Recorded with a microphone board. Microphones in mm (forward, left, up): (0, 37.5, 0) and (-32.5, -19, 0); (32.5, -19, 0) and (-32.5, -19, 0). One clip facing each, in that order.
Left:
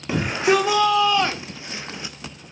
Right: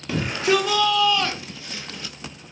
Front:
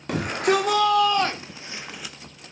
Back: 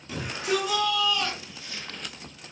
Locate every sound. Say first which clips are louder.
0.1 s a shout: left 2 dB, front 7 dB; 5° right, 1.3 m; by 2.1 s 90° left, 0.6 m